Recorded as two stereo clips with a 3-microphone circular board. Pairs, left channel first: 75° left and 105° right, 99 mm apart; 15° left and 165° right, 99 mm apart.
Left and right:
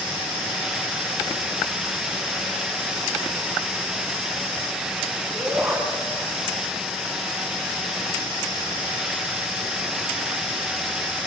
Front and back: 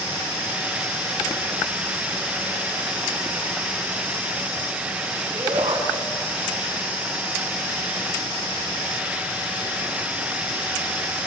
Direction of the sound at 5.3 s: 170° right.